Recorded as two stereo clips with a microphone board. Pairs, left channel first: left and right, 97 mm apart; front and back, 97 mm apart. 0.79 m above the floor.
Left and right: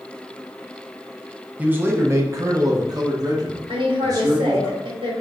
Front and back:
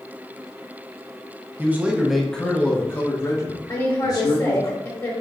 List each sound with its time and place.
1.6 s a man speaking: 140° right, 0.7 m; by 4.7 s 45° right, 1.8 m
3.7 s a woman speaking: 65° right, 2 m